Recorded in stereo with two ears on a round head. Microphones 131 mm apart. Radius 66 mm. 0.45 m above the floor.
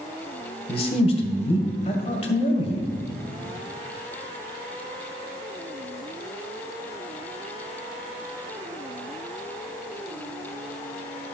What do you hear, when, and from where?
0.7 s a man speaking: 45° left (ahead or behind), 2.0 m